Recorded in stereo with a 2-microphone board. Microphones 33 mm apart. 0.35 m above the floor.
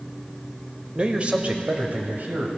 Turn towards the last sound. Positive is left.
turn(degrees=-60)  # may be behind; listen again after turning